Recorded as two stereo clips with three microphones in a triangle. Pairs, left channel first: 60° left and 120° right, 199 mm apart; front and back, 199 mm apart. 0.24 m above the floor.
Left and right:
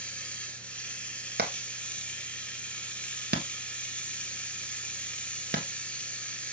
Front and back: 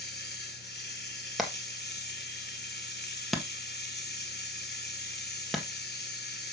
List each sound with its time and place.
0.0 s running water: 25° right, 1.4 m
1.4 s hammering: 90° right, 1.5 m